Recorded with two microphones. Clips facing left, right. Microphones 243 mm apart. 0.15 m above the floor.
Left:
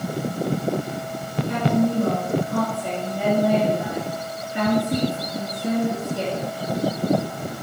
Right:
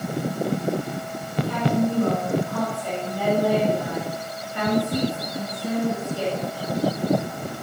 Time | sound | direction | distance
1.4 | a woman speaking | 20° left (ahead or behind) | 2 m